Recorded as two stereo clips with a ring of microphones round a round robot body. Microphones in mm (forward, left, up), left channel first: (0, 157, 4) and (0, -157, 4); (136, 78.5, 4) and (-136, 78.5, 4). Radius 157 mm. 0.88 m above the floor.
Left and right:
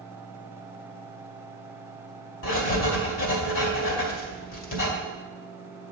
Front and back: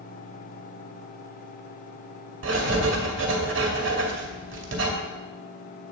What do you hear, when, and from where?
2.4 s writing: 140° left, 2.5 m